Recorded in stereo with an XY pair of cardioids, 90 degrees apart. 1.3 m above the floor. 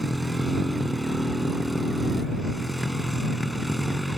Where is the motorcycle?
5° right.